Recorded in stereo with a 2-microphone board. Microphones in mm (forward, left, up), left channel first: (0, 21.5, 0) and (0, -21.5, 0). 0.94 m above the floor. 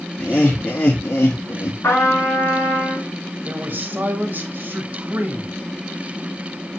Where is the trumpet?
75° left (ahead or behind), 3.5 m.